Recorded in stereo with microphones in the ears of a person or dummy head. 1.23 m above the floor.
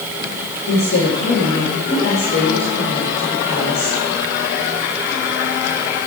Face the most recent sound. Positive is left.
turn(degrees=45)  # may be behind; listen again after turning